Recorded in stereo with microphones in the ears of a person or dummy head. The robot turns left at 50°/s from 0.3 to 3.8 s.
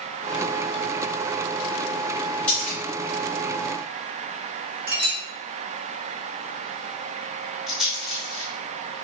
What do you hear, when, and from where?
2.5 s a splash: 10° left (ahead or behind), 1.9 m; by 2.8 s 5° right (ahead or behind), 1.9 m
4.9 s a clink: 55° right (ahead or behind), 1.3 m
7.7 s a rattle: centre (ahead or behind), 1.1 m